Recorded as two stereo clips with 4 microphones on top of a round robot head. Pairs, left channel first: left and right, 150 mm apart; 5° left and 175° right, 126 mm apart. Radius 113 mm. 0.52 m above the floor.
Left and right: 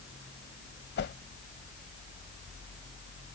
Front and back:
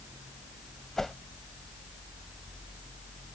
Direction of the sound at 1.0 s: 95° left.